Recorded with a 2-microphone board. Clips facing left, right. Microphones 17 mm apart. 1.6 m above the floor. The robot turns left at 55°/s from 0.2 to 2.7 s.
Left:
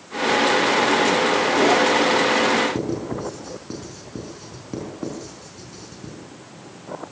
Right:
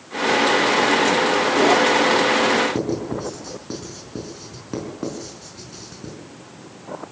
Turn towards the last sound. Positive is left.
turn(degrees=-20)  # may be behind; listen again after turning